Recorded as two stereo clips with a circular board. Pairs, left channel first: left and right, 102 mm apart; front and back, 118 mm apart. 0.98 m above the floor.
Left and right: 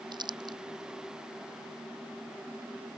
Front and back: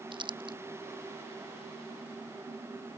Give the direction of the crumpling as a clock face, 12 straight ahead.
4 o'clock.